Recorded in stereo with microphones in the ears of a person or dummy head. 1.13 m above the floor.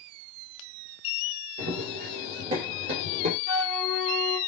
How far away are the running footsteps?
About 2.0 m.